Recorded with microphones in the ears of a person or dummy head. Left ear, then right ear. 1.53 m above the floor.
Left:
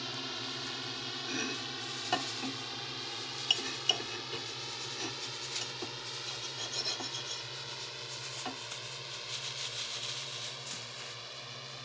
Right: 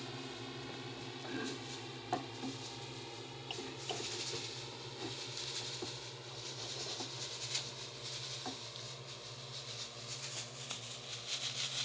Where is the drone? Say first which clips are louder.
Left 8 dB; 45° left (ahead or behind); by 11.9 s 65° left (ahead or behind).